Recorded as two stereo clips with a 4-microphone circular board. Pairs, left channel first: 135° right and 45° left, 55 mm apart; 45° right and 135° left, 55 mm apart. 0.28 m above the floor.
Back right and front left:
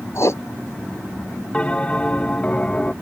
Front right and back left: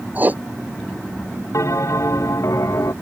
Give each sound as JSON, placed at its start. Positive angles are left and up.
{"t": 0.1, "sound": "writing", "azimuth_deg": -165}
{"t": 1.5, "sound": "a bell", "azimuth_deg": -65}